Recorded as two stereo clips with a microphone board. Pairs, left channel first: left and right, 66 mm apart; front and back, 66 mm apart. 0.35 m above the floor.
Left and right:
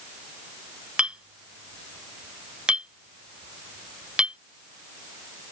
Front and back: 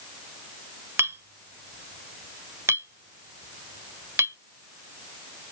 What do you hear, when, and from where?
1.0 s a clink: 155° right